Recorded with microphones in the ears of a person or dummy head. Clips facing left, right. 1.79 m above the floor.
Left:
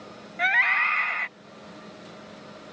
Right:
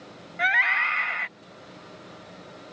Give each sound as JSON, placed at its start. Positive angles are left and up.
{"t": 0.4, "sound": "a scream", "side_deg": -5}